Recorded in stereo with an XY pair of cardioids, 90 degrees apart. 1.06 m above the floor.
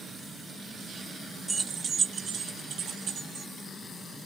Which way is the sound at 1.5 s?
30° right.